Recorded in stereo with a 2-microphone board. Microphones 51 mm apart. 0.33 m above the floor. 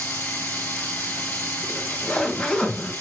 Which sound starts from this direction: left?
Running water, at 0.0 s.